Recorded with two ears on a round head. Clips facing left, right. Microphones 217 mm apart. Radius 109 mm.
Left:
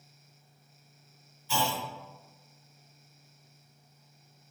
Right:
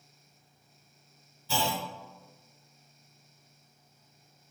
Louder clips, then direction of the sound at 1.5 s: Even; 35° right (ahead or behind).